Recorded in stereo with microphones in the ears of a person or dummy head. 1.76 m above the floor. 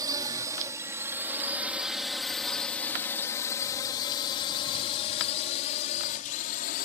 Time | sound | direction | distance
0.0 | a drone | 20° right (ahead or behind) | ?